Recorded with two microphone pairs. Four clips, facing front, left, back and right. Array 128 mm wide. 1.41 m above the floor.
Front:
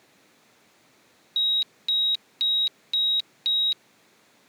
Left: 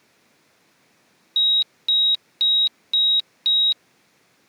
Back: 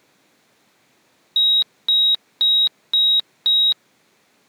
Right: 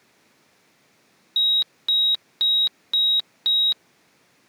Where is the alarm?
170° right.